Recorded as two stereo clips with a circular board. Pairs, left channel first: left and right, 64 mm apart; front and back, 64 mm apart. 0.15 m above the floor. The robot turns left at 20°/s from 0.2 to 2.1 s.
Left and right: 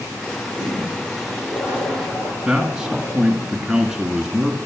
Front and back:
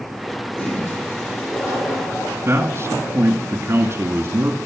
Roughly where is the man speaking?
Behind.